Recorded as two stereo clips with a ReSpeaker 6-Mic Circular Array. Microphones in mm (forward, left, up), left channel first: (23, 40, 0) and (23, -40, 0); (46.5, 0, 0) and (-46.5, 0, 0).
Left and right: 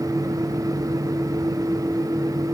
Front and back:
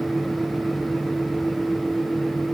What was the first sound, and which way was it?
Only background noise.